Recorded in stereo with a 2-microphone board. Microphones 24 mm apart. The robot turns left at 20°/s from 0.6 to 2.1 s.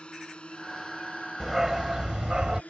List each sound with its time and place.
0.0 s a drone: 45° left (ahead or behind); by 2.7 s 80° left
1.4 s a dog barking: 10° right (ahead or behind); by 2.6 s 25° right (ahead or behind)